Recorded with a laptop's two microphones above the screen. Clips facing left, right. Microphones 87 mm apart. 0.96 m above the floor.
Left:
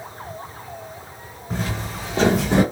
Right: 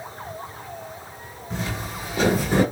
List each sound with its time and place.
1.5 s footsteps: 40° left (ahead or behind), 2 m; by 2.6 s 20° left (ahead or behind), 2.0 m